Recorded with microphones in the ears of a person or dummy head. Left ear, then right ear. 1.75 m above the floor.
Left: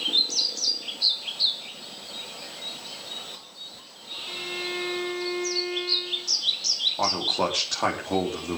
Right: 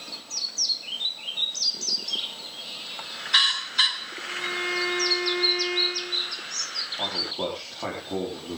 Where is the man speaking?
65° left (ahead or behind), 4.5 m.